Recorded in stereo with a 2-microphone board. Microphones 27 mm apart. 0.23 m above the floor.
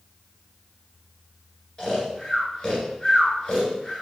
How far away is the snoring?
About 1.5 m.